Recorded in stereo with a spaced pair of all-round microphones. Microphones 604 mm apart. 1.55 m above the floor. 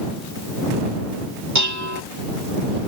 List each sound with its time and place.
1.6 s dishes clattering: 25° right (ahead or behind)